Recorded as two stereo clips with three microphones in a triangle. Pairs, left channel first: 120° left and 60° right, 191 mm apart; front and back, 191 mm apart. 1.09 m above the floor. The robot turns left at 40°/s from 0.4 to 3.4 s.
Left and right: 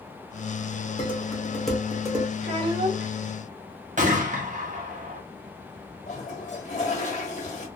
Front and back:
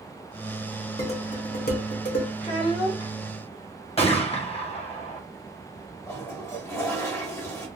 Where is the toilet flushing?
75° left, 1.0 m.